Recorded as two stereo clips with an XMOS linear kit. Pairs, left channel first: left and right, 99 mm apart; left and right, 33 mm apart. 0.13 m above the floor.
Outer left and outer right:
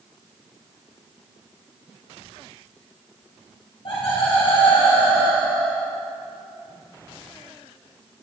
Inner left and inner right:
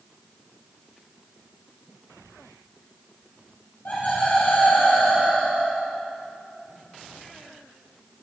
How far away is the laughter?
About 4.5 m.